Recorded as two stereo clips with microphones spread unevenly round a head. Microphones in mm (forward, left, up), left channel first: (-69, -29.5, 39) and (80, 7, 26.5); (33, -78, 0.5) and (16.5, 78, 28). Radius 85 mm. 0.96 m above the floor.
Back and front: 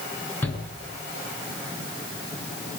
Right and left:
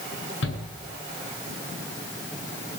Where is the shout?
90° right, 10 m.